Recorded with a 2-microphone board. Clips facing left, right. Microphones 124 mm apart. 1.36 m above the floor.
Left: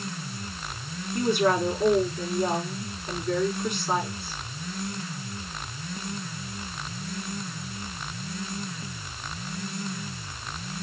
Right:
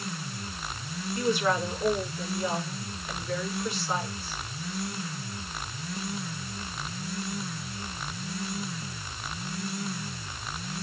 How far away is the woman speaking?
About 5 m.